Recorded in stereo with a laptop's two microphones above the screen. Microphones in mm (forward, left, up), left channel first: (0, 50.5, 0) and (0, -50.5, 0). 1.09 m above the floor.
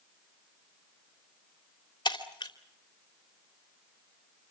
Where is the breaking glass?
45° left (ahead or behind), 3 m.